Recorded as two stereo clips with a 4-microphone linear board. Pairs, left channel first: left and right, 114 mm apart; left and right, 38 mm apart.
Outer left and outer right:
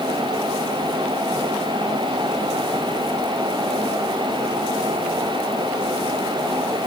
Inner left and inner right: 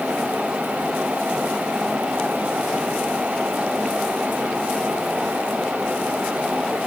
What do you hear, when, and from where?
Only background noise.